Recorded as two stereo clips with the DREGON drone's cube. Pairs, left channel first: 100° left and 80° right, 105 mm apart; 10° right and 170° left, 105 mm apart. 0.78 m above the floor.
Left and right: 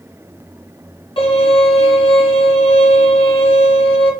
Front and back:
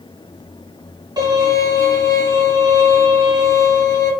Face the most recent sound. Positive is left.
turn(degrees=120)